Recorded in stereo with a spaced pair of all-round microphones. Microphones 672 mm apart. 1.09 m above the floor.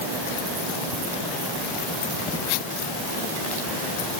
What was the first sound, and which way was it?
Only background noise.